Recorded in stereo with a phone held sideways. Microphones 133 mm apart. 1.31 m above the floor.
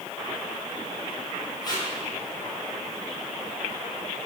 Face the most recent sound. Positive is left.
turn(degrees=30)  # may be behind; listen again after turning